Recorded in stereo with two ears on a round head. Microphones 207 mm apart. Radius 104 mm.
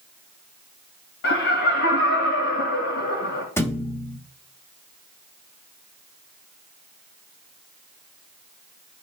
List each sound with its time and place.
1.2 s laughter: 55° left (ahead or behind), 2 m
3.6 s a thud: 10° left (ahead or behind), 1.1 m